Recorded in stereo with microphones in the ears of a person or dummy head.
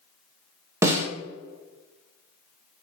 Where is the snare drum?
20° right (ahead or behind), 0.6 m.